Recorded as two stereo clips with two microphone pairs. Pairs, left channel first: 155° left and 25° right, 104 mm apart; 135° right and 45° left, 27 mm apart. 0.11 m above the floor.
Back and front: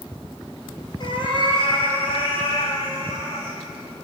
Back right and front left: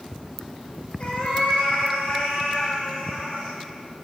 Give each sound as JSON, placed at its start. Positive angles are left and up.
{"t": 1.0, "sound": "a cat meowing", "azimuth_deg": -175, "distance_m": 1.5}